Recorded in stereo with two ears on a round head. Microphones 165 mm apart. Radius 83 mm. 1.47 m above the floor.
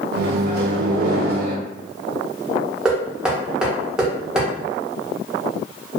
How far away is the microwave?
About 0.6 m.